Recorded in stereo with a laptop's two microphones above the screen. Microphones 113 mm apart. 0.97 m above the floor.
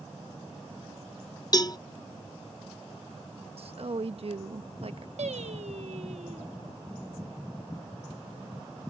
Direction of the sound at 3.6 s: 60° right (ahead or behind).